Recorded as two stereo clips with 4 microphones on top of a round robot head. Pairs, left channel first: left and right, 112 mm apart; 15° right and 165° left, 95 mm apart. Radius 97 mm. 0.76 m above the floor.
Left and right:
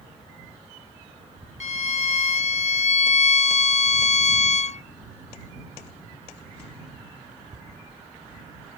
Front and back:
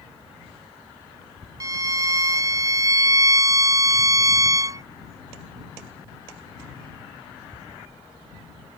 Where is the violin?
110° left.